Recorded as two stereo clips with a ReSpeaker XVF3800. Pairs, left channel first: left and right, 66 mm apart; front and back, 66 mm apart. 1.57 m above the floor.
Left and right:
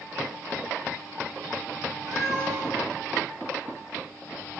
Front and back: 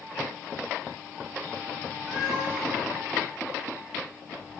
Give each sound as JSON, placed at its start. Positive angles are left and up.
{"t": 2.1, "sound": "a cat meowing", "azimuth_deg": -100, "distance_m": 6.5}